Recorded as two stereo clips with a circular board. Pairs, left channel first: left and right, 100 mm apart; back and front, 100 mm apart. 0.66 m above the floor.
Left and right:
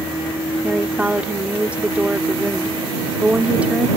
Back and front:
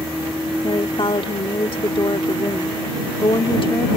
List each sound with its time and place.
0.6 s a woman speaking: 165° right